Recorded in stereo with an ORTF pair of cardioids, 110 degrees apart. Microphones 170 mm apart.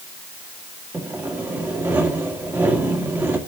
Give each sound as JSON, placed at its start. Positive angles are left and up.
{"t": 0.9, "sound": "sawing", "azimuth_deg": -10, "distance_m": 2.0}